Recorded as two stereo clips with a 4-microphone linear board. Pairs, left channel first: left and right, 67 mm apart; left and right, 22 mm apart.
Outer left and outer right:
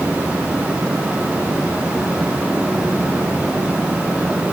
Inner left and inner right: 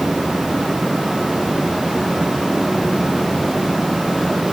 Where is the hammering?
I don't hear hammering.